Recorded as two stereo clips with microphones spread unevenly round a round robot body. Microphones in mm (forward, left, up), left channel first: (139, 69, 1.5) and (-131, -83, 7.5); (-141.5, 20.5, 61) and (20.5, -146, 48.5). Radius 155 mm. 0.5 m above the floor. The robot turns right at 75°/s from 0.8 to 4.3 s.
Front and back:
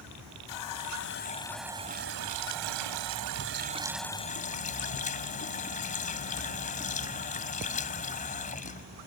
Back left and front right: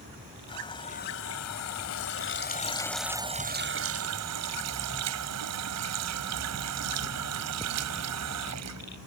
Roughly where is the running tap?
Ahead left.